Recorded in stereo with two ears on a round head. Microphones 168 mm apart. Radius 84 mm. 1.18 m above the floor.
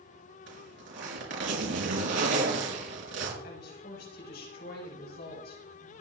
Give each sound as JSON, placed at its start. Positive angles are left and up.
{"t": 0.5, "sound": "a zipper", "side_deg": -70, "distance_m": 5.0}
{"t": 3.4, "sound": "a woman speaking", "side_deg": 55, "distance_m": 6.5}